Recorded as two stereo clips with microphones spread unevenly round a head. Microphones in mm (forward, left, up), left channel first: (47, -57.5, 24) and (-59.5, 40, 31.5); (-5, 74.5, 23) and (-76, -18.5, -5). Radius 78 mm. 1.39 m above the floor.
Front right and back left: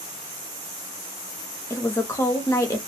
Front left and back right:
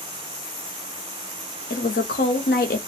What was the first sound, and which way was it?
A woman speaking, 30° left.